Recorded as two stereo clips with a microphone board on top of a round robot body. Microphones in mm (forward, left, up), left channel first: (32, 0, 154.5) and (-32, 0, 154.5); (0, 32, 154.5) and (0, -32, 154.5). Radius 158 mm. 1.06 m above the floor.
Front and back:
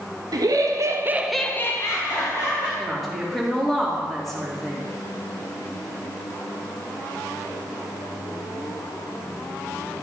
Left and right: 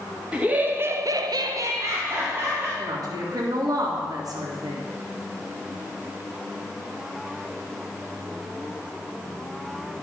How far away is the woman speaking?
About 2.5 m.